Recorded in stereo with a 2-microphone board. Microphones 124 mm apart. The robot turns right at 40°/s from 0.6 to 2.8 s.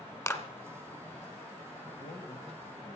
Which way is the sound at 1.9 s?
40° left (ahead or behind).